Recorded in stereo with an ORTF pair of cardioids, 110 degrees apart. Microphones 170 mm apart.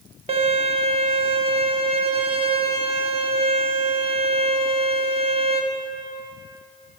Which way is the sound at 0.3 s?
30° right.